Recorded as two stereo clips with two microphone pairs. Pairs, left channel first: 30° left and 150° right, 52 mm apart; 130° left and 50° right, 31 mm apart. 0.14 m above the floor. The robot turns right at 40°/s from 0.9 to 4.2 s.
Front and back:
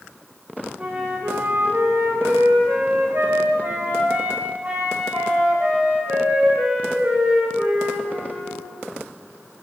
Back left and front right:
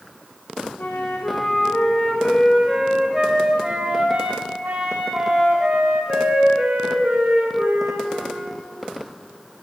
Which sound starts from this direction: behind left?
A flute, at 0.8 s.